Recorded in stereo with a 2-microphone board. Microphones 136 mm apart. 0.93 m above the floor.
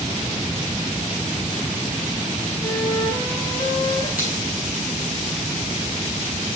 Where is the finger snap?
85° left, 4.5 m.